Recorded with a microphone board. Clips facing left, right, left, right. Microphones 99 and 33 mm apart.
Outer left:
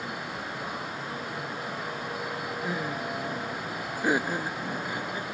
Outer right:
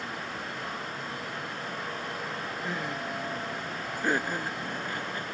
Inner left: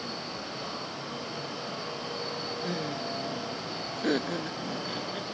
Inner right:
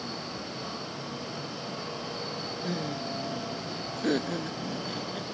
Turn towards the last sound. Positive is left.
turn(degrees=10)  # may be behind; listen again after turning